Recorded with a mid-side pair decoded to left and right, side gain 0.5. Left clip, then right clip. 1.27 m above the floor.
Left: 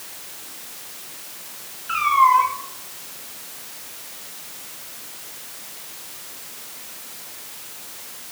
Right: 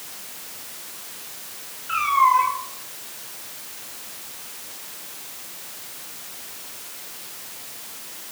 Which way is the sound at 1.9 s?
20° left.